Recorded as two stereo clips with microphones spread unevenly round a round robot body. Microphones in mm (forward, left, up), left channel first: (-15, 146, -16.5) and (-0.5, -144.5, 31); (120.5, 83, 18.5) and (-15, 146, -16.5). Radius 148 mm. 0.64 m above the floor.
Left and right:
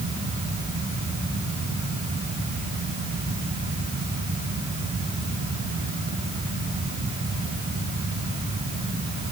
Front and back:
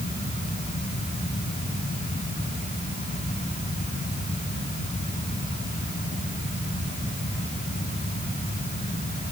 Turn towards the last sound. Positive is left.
No sound to turn to.